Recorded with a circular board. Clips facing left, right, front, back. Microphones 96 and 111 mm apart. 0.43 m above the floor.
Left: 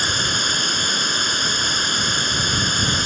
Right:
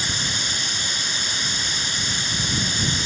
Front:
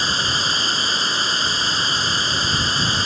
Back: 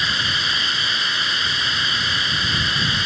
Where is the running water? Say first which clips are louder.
Left 5 dB, front 2 dB; 60° left.